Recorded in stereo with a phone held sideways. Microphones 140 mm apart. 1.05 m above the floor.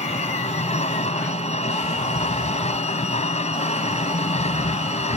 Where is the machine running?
55° left (ahead or behind).